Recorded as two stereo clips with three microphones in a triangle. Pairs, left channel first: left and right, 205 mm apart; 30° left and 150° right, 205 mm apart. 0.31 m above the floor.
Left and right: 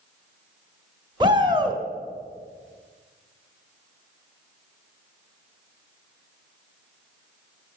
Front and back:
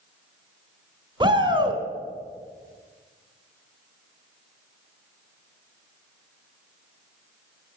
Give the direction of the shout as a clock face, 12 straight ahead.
4 o'clock.